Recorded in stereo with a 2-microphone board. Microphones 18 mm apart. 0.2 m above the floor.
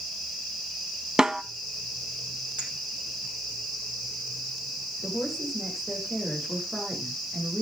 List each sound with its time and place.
1.2 s a snare drum: 35° right (ahead or behind), 0.8 m
2.6 s a clink: 75° right (ahead or behind), 5.5 m
5.0 s a woman speaking: 15° right (ahead or behind), 9.5 m